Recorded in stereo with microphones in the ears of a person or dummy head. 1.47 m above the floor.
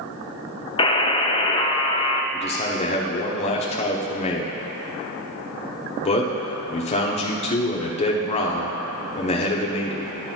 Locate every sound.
0.8 s a buzzer: 30° left (ahead or behind), 0.6 m
2.3 s a man speaking: 35° left (ahead or behind), 1.0 m